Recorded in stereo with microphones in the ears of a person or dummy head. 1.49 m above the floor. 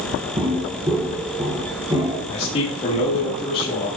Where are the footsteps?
20° right (ahead or behind), 2.5 m.